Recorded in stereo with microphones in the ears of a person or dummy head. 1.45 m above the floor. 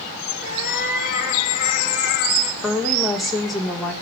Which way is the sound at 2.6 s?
Centre (ahead or behind).